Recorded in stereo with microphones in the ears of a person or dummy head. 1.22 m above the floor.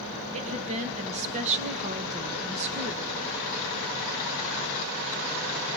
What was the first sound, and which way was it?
A woman speaking, 35° right (ahead or behind).